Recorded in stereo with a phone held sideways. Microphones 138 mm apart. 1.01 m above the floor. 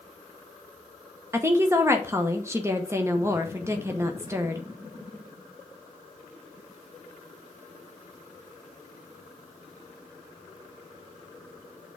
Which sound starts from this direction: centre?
A woman speaking, at 1.3 s.